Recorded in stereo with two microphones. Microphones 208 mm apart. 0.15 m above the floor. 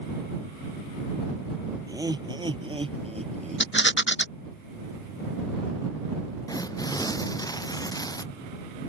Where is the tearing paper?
20° left (ahead or behind).